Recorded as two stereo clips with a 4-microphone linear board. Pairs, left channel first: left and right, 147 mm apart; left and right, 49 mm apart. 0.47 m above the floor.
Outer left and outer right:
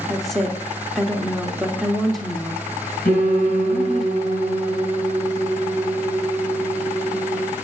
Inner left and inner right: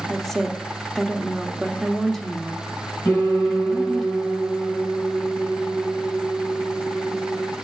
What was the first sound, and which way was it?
A woman speaking, centre (ahead or behind).